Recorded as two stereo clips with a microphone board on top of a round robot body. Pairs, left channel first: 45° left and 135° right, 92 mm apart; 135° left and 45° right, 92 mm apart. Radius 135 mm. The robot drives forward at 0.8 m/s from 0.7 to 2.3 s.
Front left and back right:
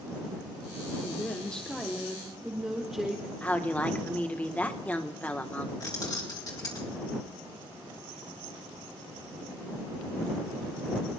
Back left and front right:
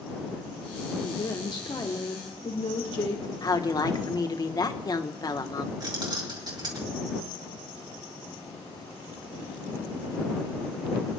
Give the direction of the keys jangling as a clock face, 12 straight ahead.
12 o'clock.